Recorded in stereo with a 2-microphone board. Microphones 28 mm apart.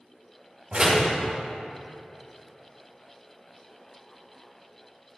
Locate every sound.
0.7 s a door slam: 40° right (ahead or behind), 2.5 m